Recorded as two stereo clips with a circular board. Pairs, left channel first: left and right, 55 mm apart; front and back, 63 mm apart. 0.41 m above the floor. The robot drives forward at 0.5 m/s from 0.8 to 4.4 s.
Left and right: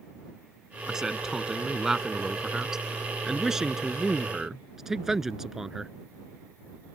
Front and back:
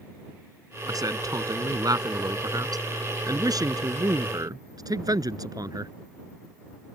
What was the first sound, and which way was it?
A man speaking, 170° right.